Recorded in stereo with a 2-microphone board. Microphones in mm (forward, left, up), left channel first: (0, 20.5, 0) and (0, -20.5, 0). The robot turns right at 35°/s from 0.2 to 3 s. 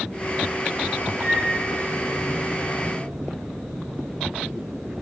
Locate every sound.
1.2 s a flute: 80° right, 4.5 m; by 1.4 s 75° right (ahead or behind), 4.5 m